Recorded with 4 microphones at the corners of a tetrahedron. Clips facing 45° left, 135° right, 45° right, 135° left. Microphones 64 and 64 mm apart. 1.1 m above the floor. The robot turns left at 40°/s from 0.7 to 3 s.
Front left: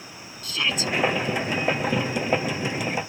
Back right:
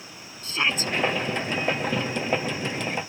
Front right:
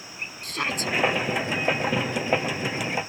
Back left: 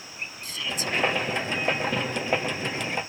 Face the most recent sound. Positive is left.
turn(degrees=-165)